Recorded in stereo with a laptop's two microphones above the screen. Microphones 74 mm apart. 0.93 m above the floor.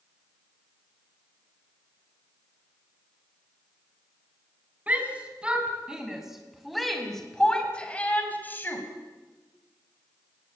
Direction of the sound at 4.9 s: 20° right (ahead or behind).